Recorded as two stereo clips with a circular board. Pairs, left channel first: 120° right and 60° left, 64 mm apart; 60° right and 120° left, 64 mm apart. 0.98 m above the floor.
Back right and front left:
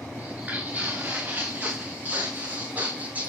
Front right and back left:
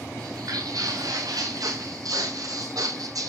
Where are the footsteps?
125° left, 5 m.